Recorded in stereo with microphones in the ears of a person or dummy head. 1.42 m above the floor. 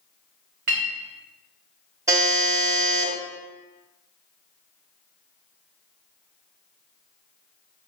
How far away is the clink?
About 0.5 m.